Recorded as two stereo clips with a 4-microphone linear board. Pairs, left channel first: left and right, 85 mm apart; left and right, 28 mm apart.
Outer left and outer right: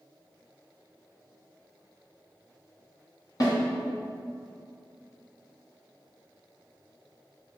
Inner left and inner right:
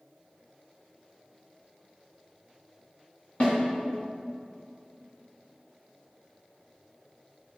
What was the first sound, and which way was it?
A snare drum, 50° left (ahead or behind).